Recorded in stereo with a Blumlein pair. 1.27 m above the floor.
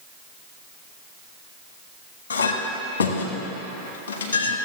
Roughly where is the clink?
Ahead left.